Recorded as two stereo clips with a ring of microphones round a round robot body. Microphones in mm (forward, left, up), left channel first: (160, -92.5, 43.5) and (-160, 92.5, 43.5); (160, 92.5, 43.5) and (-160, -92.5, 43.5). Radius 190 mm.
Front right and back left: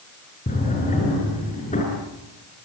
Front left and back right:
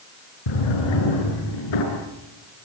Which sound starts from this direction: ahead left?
A drawer, at 0.5 s.